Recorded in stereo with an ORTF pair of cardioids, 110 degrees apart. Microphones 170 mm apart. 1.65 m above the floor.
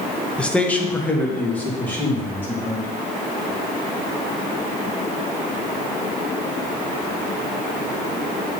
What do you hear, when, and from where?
0.4 s a man speaking: 5° left, 0.9 m; by 2.9 s 10° left, 3.5 m